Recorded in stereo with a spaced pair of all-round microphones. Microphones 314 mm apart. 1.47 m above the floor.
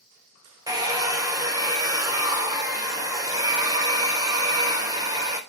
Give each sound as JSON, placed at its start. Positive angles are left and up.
{"t": 0.7, "sound": "a hair dryer", "side_deg": -10, "distance_m": 0.5}